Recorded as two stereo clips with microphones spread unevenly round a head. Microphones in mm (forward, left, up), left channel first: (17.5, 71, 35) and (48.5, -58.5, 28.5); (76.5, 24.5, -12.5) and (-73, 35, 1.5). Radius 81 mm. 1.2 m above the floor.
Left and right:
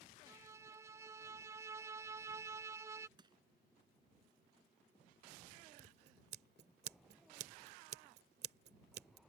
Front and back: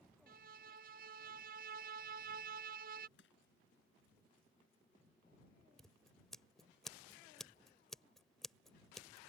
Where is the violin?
145° right.